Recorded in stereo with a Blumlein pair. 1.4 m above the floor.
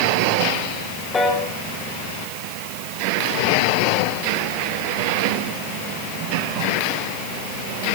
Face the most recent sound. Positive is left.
turn(degrees=15)